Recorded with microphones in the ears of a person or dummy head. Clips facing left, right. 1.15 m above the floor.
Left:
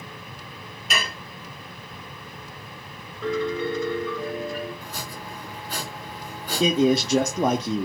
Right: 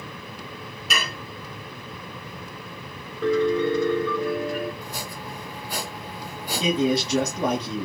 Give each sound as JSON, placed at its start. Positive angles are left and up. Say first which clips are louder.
{"t": 0.9, "sound": "dishes clattering", "louder": "left 1 dB", "side_deg": -80, "distance_m": 1.5}
{"t": 3.2, "sound": "a piano", "louder": "right 5 dB", "side_deg": -60, "distance_m": 1.3}
{"t": 4.8, "sound": "chopping", "louder": "right 1 dB", "side_deg": -10, "distance_m": 1.0}
{"t": 6.6, "sound": "a man speaking", "louder": "left 3 dB", "side_deg": 40, "distance_m": 0.5}